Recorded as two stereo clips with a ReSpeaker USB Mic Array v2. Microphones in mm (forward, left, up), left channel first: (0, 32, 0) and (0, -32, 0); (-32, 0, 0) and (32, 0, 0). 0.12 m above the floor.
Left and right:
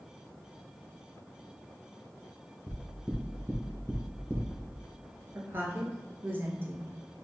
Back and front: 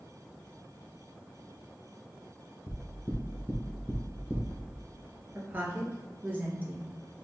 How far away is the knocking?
About 1.2 m.